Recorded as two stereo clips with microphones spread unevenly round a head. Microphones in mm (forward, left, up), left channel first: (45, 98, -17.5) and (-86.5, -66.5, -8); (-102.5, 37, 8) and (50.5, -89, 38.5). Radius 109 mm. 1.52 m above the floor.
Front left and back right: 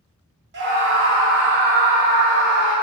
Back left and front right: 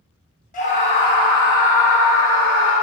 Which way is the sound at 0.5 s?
165° right.